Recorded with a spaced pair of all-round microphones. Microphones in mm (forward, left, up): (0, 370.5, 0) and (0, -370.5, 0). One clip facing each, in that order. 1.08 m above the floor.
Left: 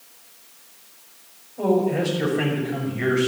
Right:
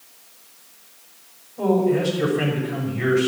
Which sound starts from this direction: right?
A man speaking, at 1.6 s.